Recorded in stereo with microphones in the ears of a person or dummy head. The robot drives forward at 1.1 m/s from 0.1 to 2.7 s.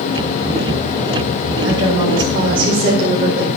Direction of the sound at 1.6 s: 30° right (ahead or behind).